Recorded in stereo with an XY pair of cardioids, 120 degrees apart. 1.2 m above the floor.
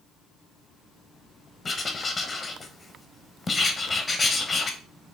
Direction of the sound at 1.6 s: 30° left.